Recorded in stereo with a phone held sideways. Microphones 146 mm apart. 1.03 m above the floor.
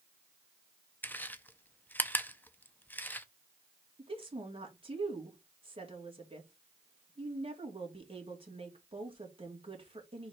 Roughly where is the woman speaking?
Right.